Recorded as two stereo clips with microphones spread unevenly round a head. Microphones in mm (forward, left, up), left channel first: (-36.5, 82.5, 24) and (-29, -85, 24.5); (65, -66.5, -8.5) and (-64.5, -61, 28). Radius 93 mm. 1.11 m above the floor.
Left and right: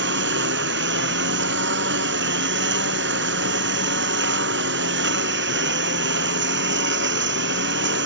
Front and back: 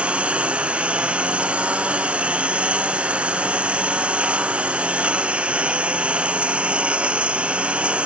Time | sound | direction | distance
0.0 | a lawn mower | 100° right | ?